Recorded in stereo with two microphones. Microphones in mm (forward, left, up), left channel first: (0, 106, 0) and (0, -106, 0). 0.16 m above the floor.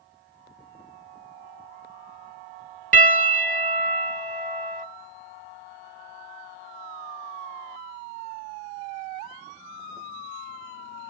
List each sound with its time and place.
2.9 s a piano: 40° right (ahead or behind), 0.5 m